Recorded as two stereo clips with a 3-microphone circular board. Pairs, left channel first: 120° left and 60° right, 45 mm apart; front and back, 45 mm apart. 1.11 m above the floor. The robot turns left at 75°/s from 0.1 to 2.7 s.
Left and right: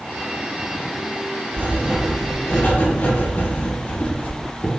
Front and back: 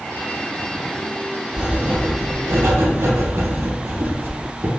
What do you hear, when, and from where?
1.5 s writing: 100° right, 0.6 m; by 4.7 s 170° left, 0.6 m